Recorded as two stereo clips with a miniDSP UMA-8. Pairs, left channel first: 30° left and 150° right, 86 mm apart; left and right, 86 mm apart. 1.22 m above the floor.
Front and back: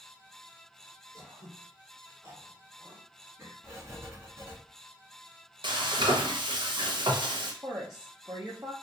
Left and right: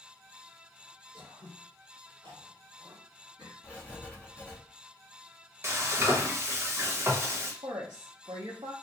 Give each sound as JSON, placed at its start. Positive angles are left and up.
{"t": 1.1, "sound": "throat clearing", "azimuth_deg": -100, "distance_m": 1.6}
{"t": 3.6, "sound": "writing", "azimuth_deg": 160, "distance_m": 0.9}
{"t": 5.6, "sound": "frying", "azimuth_deg": -145, "distance_m": 0.7}
{"t": 7.6, "sound": "a woman speaking", "azimuth_deg": -100, "distance_m": 0.7}